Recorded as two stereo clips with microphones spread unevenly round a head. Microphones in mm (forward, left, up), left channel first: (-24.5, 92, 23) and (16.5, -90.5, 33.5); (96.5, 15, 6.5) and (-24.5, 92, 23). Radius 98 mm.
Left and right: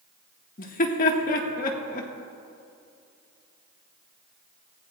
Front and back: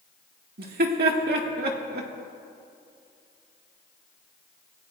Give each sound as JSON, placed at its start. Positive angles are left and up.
{"t": 0.6, "sound": "laughter", "azimuth_deg": 145, "distance_m": 2.0}